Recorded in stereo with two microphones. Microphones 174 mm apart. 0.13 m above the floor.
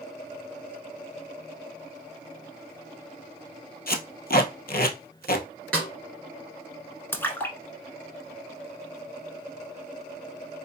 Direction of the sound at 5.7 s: 5° left (ahead or behind).